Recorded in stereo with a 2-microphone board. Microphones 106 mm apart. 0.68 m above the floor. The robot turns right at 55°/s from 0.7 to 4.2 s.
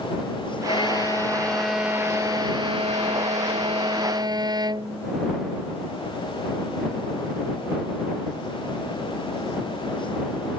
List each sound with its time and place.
0.7 s a violin: 125° left; by 5.1 s 40° right